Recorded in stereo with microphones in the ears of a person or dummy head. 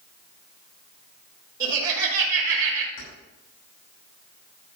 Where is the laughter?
20° right (ahead or behind), 4 m.